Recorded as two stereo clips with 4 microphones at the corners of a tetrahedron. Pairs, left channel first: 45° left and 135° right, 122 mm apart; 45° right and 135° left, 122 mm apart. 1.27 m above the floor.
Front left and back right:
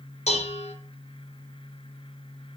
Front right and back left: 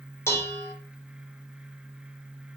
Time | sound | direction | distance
0.3 | dishes clattering | 25° left | 1.1 m